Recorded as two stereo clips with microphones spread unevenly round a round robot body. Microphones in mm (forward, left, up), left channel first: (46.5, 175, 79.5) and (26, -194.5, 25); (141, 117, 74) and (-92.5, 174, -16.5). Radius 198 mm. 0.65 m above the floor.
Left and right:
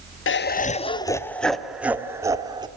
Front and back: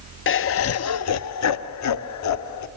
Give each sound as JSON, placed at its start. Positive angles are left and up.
{"t": 0.3, "sound": "laughter", "azimuth_deg": 35, "distance_m": 0.7}